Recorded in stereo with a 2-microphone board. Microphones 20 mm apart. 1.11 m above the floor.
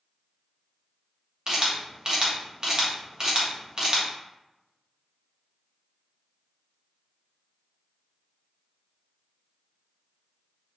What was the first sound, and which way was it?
A camera shutter, 35° right (ahead or behind).